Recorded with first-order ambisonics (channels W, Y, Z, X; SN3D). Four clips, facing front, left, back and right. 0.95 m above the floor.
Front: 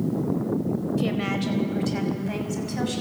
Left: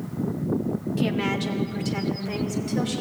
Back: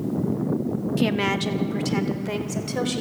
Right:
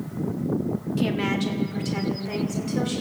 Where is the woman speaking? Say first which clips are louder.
Right 1 dB, back 7 dB; straight behind, 1.5 m.